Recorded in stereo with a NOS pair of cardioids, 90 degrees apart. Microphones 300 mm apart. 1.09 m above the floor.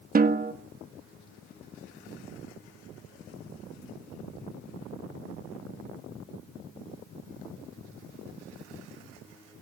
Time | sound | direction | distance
0.1 | a snare drum | 30° right | 1.6 m